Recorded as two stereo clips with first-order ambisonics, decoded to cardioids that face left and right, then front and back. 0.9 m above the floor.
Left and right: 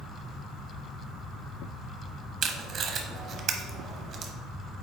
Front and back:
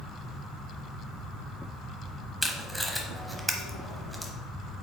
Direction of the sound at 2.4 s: 95° right.